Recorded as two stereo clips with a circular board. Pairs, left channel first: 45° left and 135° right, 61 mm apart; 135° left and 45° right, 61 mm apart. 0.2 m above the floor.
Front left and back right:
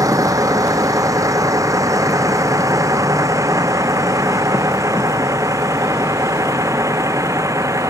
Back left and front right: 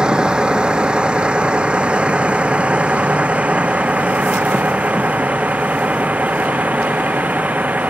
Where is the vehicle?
120° right; by 7.9 s 110° right.